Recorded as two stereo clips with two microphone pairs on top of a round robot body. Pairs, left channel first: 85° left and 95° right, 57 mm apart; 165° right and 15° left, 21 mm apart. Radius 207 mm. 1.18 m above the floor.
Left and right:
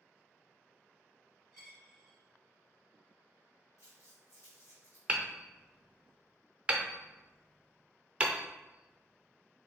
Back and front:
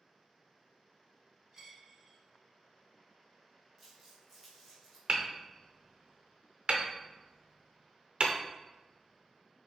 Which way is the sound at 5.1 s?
30° right.